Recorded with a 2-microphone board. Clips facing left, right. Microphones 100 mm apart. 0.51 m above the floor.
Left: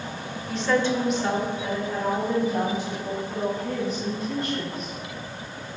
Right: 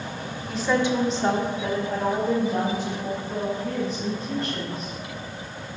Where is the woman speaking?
Centre (ahead or behind), 0.9 m; by 4.9 s 40° right (ahead or behind), 4.5 m.